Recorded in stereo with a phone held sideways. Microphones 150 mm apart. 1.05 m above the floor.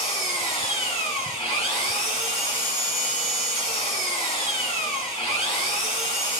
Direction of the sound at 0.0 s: 40° left (ahead or behind).